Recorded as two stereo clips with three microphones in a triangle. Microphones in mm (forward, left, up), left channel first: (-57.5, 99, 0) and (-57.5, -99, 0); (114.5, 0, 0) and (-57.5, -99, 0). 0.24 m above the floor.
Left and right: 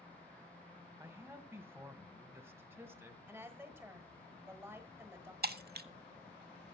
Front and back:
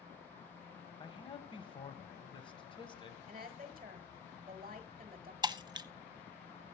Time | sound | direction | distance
1.0 | a man speaking | 20° right | 1.6 m
3.3 | a woman speaking | 160° right | 1.6 m
5.4 | breaking glass | 85° right | 0.7 m